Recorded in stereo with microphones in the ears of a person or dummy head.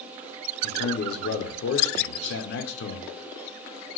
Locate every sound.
0.6 s a man speaking: 70° left (ahead or behind), 0.7 m